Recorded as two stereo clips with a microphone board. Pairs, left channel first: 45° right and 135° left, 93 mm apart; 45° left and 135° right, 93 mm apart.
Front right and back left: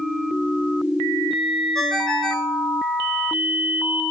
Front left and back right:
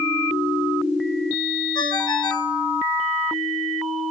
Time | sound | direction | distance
1.8 | a ringtone | 40° left | 1.4 m